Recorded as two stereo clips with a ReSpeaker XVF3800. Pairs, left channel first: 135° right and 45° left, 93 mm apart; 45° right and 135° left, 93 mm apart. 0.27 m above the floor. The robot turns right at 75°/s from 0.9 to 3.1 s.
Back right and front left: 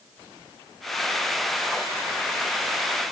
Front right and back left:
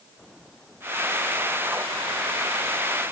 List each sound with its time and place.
Only background noise.